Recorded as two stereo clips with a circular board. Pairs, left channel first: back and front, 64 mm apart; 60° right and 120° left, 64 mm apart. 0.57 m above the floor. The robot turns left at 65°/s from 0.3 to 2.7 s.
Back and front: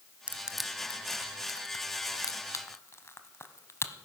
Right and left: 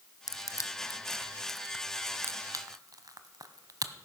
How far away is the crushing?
About 0.9 m.